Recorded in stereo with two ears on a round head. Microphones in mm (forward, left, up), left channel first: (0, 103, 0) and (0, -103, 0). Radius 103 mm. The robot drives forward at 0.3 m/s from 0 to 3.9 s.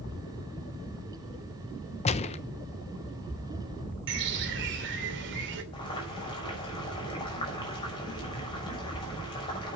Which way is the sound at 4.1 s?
55° right (ahead or behind).